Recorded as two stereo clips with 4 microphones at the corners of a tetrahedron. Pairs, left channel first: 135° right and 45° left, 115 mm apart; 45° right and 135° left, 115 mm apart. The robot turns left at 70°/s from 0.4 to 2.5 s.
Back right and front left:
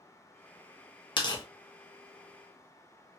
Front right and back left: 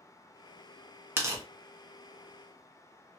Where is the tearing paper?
160° right, 0.8 m; by 1.4 s straight behind, 0.8 m.